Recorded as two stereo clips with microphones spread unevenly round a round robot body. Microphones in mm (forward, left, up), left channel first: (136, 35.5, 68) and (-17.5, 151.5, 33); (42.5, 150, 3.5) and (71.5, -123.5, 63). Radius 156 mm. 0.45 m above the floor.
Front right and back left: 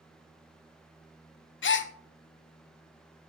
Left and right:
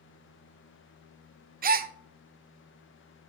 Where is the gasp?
20° right, 0.5 m.